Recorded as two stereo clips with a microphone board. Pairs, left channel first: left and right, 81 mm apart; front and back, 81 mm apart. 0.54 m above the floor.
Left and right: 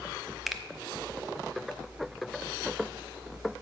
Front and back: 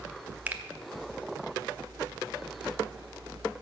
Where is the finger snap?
175° right, 0.8 m.